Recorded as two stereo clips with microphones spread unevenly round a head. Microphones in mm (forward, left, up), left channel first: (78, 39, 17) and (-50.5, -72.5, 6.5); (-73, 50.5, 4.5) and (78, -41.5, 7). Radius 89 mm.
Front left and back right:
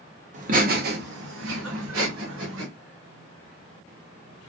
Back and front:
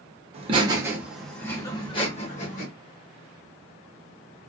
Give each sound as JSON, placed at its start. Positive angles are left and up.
{"t": 0.3, "sound": "laughter", "azimuth_deg": -90, "distance_m": 0.9}